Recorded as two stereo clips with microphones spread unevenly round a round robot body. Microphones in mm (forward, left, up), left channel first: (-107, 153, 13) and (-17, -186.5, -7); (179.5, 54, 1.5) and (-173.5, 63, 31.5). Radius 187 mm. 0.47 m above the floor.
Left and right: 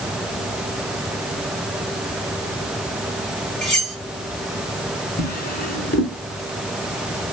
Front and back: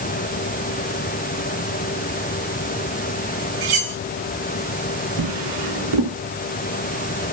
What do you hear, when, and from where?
3.6 s cutlery clinking: 165° right, 5 m
5.2 s a drawer: 170° left, 3.5 m